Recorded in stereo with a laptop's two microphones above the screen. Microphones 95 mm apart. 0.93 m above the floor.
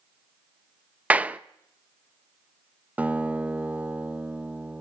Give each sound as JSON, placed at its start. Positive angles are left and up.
{"t": 1.1, "sound": "a clap", "side_deg": -15, "distance_m": 0.6}
{"t": 3.0, "sound": "a guitar", "side_deg": -15, "distance_m": 1.1}